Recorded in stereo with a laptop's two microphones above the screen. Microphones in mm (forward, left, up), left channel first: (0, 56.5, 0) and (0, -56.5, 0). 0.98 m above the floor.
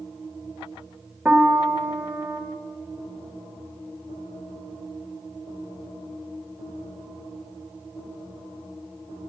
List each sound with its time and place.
1.2 s a piano: 15° right (ahead or behind), 1.8 m